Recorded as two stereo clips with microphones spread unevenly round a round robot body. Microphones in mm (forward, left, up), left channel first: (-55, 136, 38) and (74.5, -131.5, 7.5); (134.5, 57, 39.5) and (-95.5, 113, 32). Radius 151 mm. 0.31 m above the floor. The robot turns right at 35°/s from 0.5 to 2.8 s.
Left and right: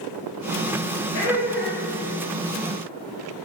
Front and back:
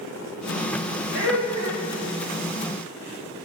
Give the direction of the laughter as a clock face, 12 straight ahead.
7 o'clock.